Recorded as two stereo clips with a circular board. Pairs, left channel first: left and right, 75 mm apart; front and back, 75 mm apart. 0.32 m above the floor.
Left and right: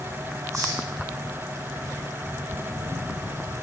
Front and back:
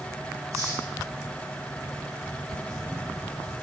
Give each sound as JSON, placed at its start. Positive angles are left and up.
{"t": 0.5, "sound": "a hiss", "azimuth_deg": -135, "distance_m": 6.0}